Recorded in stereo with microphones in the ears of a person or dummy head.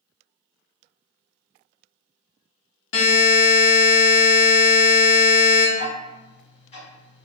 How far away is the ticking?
About 1.4 m.